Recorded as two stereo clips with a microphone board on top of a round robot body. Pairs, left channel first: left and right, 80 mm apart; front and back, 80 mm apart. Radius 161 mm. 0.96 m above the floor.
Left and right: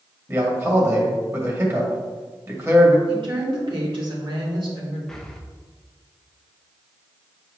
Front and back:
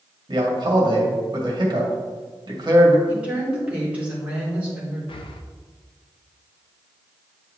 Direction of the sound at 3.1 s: 105° right.